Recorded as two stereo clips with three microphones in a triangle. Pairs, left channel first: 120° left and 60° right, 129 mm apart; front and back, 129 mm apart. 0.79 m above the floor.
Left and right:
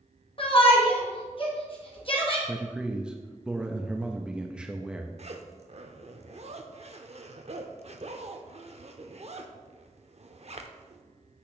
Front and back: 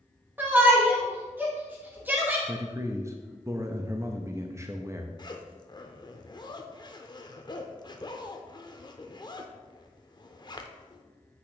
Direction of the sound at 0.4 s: 110° left.